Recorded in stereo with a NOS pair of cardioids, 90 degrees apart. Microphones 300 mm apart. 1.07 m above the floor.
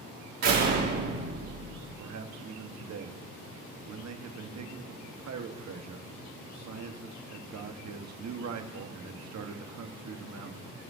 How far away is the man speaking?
About 1.4 m.